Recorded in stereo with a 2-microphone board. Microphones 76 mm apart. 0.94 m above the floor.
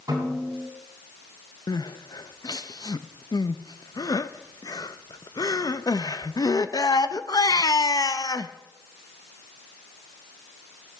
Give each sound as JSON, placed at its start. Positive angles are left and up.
{"t": 0.1, "sound": "a snare drum", "side_deg": -55, "distance_m": 8.5}
{"t": 1.7, "sound": "crying", "side_deg": 60, "distance_m": 0.6}